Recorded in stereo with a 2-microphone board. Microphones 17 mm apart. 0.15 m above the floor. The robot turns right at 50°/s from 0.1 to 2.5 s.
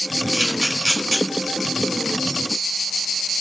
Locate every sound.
0.3 s a camera shutter: 30° right (ahead or behind), 1.0 m; by 1.2 s 10° right (ahead or behind), 1.0 m